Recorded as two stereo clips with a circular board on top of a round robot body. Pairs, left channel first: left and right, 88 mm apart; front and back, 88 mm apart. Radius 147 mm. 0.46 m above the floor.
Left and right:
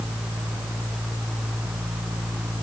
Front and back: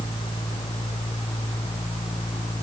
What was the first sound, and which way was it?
Only background noise.